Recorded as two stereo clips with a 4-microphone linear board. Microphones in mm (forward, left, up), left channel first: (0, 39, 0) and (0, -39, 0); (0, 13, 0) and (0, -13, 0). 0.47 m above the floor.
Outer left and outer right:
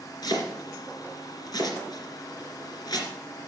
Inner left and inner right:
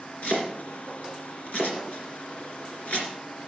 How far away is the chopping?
About 2.5 m.